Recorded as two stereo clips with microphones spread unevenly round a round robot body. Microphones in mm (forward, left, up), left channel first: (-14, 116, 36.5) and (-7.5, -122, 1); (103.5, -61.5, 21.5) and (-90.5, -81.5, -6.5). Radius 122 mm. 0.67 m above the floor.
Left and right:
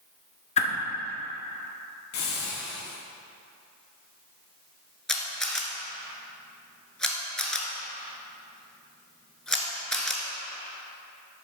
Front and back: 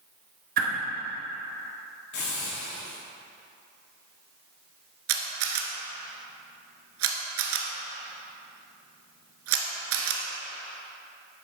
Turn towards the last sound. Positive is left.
turn(degrees=175)